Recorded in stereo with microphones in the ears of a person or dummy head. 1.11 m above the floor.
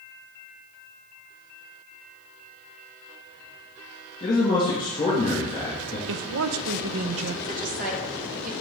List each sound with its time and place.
4.2 s a man speaking: 25° left (ahead or behind), 1.8 m
6.1 s a woman speaking: 75° right (ahead or behind), 0.6 m
7.4 s a woman speaking: 45° right (ahead or behind), 1.2 m